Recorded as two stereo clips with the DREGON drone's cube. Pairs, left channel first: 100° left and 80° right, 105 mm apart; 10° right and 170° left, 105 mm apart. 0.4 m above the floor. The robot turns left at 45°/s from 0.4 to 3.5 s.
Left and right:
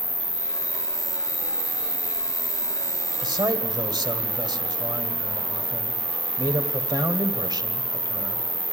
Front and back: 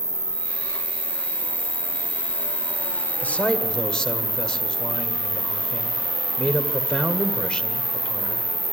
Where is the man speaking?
75° right, 1.8 m; by 8.5 s 90° right, 1.8 m.